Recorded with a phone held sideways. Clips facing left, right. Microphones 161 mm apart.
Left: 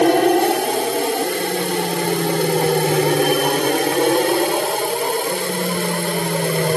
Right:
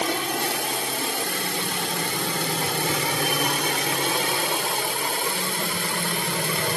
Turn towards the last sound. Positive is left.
turn(degrees=50)  # may be behind; listen again after turning